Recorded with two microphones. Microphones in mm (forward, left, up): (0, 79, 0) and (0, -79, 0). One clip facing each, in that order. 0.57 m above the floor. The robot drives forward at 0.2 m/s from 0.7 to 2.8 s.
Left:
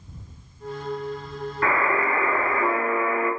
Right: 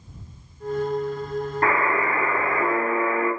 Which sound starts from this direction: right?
A buzzer, at 1.6 s.